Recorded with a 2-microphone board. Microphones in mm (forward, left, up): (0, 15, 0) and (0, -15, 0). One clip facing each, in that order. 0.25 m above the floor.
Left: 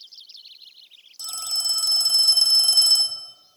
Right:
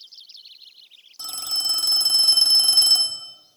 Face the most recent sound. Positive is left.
turn(degrees=-20)  # may be behind; listen again after turning